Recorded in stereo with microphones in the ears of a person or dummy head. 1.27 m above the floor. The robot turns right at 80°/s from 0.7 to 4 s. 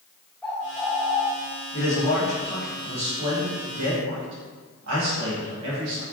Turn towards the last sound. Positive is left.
turn(degrees=-90)